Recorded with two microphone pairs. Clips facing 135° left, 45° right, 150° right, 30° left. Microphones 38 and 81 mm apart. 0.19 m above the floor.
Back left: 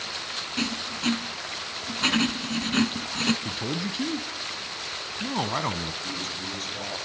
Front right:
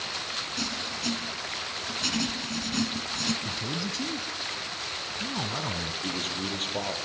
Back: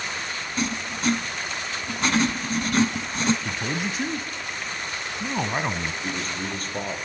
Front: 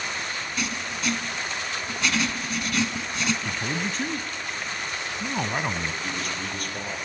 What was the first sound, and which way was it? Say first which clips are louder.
Writing: back left 7 dB, back 5 dB; 170° left.